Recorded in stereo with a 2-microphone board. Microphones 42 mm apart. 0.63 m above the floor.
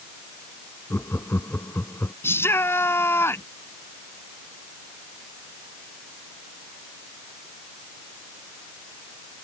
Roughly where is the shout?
Left.